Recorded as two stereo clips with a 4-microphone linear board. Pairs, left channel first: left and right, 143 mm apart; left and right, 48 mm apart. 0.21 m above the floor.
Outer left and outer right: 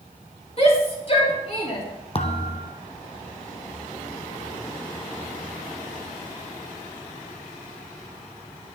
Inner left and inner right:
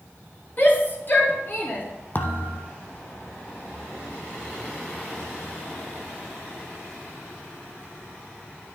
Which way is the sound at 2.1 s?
45° left (ahead or behind).